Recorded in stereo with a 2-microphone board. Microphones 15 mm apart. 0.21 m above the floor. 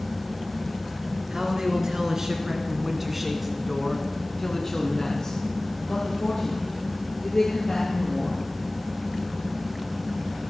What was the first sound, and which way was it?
A man speaking, 50° right (ahead or behind).